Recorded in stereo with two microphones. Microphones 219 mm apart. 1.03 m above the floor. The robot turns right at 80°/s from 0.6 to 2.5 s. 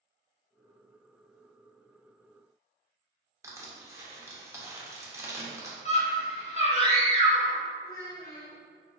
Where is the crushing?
15° right (ahead or behind), 0.6 m.